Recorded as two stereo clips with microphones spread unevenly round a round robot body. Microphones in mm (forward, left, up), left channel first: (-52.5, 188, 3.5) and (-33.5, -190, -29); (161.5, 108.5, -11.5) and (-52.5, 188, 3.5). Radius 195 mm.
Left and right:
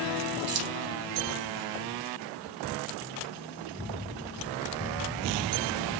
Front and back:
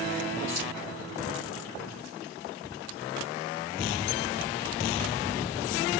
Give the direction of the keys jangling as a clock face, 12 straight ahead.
5 o'clock.